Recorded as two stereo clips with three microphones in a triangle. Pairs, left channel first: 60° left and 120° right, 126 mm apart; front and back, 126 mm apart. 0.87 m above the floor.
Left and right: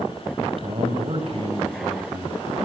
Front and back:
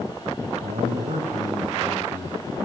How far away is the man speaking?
About 4.5 m.